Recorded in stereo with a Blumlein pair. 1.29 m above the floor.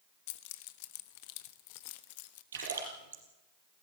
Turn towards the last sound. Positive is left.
turn(degrees=-65)